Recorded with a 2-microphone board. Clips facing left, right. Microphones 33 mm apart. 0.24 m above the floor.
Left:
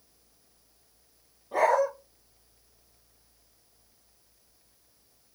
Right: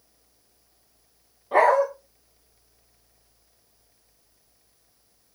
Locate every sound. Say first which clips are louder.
1.5 s a dog barking: right 5 dB; 60° right (ahead or behind), 8.5 m